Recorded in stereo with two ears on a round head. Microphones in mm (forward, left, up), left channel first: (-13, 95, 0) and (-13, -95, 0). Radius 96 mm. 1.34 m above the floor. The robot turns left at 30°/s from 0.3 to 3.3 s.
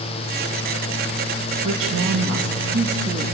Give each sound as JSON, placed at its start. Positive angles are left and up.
{"t": 1.6, "sound": "a woman speaking", "azimuth_deg": -100, "distance_m": 1.7}